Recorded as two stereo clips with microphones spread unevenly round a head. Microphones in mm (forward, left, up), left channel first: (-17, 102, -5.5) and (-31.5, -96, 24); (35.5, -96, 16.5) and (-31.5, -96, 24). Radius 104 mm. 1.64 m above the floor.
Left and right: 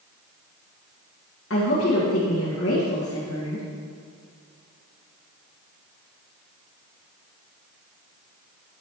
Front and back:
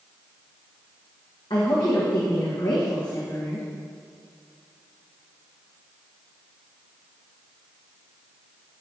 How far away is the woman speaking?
About 1.8 m.